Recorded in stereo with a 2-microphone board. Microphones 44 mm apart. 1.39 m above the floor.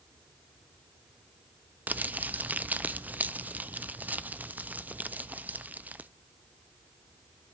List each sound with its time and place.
1.9 s crumpling: 40° right (ahead or behind), 0.5 m